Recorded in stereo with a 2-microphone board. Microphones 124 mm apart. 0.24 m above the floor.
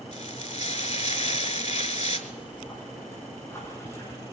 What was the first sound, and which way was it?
Frying, 70° left (ahead or behind).